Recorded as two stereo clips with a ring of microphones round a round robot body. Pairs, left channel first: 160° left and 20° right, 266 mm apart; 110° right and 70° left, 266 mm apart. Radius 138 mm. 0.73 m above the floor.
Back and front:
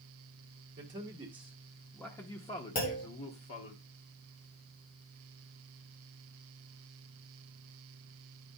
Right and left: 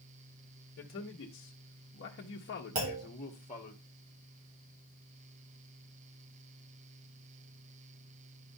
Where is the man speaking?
75° right, 1.1 m; by 3.8 s 175° right, 1.3 m.